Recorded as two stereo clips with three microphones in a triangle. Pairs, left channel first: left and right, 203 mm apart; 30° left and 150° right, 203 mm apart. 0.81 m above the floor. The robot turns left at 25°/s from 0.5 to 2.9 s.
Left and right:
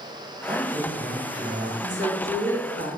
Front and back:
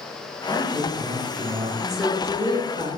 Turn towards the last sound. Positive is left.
turn(degrees=-85)